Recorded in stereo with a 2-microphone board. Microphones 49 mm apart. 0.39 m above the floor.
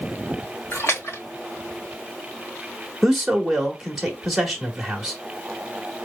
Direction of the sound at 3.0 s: 5° right (ahead or behind).